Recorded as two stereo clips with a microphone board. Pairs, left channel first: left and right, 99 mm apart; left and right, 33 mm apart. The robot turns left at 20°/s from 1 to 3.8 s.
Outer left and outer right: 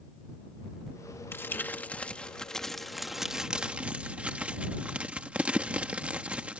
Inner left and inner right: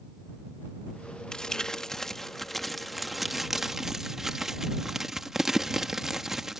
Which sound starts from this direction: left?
Crumpling, at 1.3 s.